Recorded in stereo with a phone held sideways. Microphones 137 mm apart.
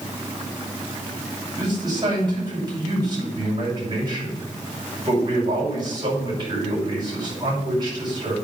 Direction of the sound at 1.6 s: 35° right (ahead or behind).